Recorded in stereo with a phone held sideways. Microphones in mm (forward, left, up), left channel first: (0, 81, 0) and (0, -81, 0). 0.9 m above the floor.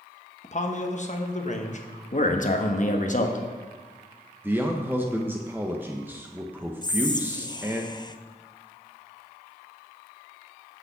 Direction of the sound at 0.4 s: 45° left (ahead or behind).